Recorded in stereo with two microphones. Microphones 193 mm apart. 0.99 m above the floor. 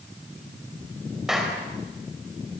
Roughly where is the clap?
Centre.